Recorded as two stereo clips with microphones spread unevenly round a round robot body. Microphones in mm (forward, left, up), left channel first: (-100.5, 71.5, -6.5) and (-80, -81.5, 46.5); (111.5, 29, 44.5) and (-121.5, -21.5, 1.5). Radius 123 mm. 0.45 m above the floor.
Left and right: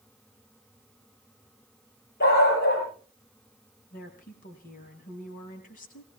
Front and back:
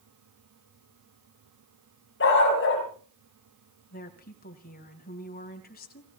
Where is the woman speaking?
65° left, 3 m.